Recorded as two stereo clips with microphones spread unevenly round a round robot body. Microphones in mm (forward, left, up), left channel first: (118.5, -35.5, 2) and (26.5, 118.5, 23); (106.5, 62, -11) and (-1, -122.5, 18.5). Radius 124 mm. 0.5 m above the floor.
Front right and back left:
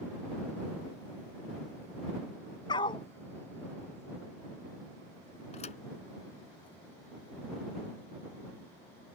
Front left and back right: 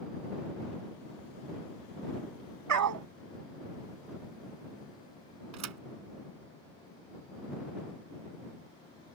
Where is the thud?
125° right.